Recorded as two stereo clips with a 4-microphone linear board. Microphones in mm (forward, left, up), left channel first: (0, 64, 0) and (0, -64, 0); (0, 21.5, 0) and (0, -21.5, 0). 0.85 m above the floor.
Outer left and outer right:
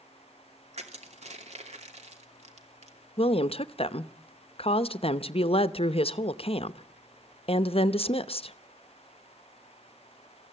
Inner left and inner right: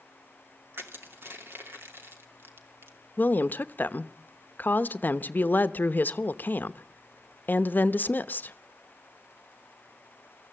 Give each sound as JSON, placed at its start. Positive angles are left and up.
{"t": 0.7, "sound": "crushing", "side_deg": -60, "distance_m": 2.5}
{"t": 3.2, "sound": "a woman speaking", "side_deg": 50, "distance_m": 0.7}